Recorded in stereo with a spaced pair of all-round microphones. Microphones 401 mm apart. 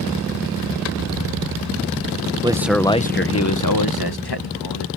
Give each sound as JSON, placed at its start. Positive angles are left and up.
{"t": 2.4, "sound": "a man speaking", "side_deg": -15}